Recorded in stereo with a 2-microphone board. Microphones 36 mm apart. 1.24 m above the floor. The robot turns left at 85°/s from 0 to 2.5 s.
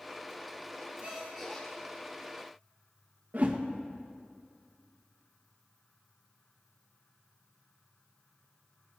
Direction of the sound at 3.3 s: 55° right (ahead or behind).